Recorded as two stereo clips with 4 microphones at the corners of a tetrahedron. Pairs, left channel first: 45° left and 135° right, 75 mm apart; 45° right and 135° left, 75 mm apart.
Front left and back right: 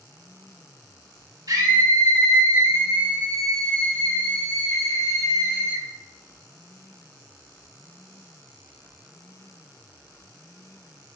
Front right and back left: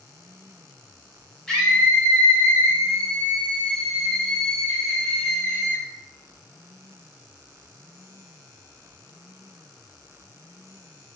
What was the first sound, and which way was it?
A scream, 135° right.